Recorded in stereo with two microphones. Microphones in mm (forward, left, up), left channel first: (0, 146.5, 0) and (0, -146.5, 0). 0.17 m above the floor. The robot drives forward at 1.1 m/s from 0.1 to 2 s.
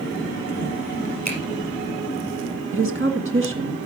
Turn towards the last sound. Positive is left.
turn(degrees=-45)  # may be behind; listen again after turning